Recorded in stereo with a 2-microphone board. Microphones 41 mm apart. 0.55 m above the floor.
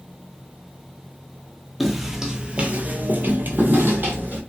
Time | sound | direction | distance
1.8 | footsteps | centre (ahead or behind) | 0.7 m